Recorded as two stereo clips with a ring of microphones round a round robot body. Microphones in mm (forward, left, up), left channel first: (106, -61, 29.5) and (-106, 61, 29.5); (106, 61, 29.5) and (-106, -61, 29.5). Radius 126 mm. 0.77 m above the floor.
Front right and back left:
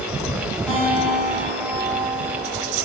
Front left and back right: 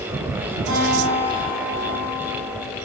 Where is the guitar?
115° right, 2 m.